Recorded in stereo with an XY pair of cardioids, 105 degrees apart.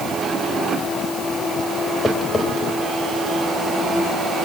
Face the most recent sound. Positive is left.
turn(degrees=30)